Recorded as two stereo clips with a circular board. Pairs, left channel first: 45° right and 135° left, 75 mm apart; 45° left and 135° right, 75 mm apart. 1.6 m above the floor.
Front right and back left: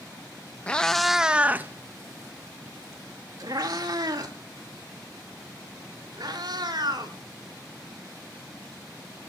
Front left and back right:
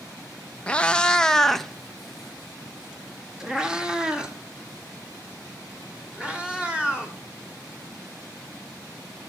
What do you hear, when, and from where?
0.7 s a cat meowing: 5° left, 0.8 m; by 7.2 s 150° left, 4 m